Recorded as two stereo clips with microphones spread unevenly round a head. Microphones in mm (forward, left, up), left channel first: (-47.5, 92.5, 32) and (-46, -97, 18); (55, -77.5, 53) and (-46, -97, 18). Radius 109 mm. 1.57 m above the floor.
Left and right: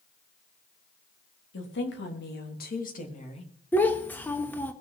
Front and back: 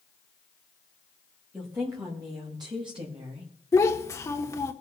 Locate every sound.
1.5 s a woman speaking: 110° left, 4 m; by 3.5 s 150° left, 3 m
3.7 s a child speaking: 15° left, 1.0 m